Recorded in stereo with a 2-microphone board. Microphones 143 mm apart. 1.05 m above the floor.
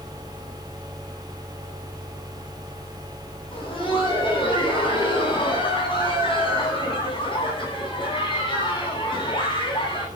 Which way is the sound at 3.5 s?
35° left (ahead or behind).